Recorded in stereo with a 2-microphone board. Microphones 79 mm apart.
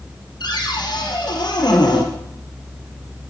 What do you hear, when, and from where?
0.4 s a cupboard door: 65° left (ahead or behind), 3 m